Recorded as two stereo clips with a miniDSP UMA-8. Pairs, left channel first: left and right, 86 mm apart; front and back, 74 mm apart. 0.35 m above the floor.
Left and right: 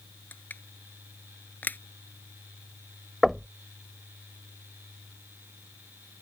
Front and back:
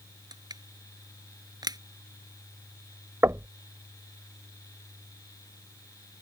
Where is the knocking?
Straight behind.